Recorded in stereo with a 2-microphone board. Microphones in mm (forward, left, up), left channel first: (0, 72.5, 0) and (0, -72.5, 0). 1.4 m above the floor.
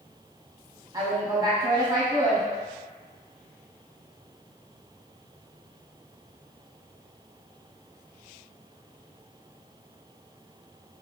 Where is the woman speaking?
30° right (ahead or behind), 0.7 m.